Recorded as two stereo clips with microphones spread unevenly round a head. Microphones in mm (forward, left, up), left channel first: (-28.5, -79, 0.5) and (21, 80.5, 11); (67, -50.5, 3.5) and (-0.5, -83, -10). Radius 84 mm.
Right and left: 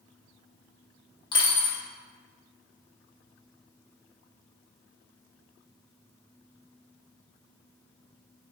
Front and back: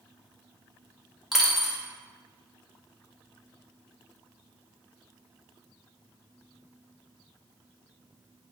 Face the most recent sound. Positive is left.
turn(degrees=-50)